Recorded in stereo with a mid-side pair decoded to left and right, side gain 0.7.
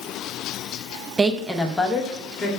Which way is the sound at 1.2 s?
25° right.